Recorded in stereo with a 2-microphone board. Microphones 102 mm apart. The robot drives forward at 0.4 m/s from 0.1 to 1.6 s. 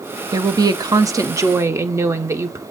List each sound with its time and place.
0.3 s a woman speaking: 35° right (ahead or behind), 0.5 m; by 2.6 s 25° right (ahead or behind), 0.7 m